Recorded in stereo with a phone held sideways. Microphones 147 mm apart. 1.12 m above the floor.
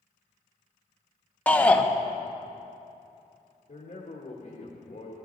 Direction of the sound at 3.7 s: 50° left (ahead or behind).